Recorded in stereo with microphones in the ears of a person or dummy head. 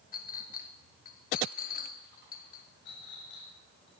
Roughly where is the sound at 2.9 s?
Left.